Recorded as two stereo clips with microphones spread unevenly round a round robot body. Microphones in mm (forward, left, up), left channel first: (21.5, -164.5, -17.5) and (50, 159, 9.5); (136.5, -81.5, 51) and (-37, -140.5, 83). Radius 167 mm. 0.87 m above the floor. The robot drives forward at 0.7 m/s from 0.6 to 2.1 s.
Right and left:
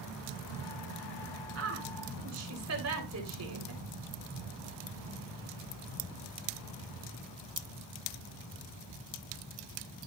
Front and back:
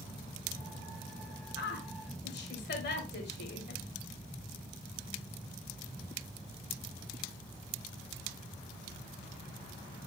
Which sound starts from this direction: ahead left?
A woman speaking, at 1.6 s.